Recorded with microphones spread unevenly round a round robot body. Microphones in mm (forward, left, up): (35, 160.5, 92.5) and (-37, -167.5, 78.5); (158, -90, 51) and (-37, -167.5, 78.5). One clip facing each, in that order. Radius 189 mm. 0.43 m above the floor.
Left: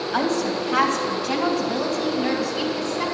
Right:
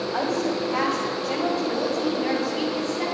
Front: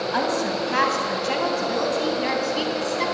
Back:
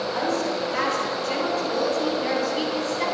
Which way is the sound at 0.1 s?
25° left.